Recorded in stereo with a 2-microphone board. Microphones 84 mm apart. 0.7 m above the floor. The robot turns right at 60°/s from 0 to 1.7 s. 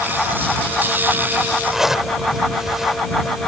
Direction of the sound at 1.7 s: Centre (ahead or behind).